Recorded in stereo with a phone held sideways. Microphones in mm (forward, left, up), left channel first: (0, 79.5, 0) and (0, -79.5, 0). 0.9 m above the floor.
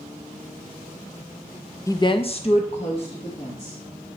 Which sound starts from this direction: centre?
A woman speaking, at 1.9 s.